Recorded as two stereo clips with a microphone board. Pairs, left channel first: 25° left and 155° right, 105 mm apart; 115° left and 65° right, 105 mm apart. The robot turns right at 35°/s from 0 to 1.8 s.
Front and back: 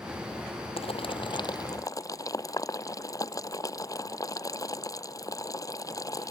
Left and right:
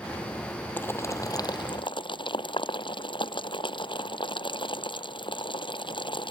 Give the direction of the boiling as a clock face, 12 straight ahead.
11 o'clock.